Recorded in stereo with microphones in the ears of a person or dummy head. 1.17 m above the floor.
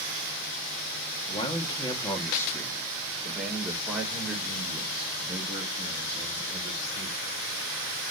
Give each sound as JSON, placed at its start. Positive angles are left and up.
{"t": 1.3, "sound": "a man speaking", "side_deg": 35, "distance_m": 1.9}